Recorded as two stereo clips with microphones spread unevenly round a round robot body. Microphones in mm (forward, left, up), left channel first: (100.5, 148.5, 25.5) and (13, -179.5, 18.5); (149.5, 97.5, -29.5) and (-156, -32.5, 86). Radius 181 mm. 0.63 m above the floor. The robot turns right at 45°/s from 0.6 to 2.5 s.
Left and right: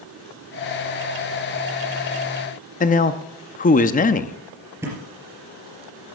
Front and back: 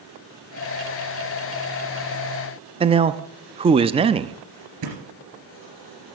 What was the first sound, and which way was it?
A man speaking, 105° left.